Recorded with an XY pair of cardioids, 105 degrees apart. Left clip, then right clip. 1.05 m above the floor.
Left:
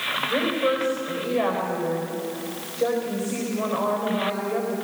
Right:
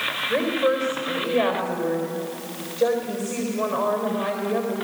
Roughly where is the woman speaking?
Ahead right.